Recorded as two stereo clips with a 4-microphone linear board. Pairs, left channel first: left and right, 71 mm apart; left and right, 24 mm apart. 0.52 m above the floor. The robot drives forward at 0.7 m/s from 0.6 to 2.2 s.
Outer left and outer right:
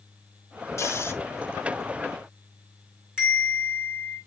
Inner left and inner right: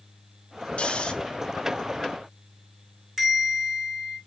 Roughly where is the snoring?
Left.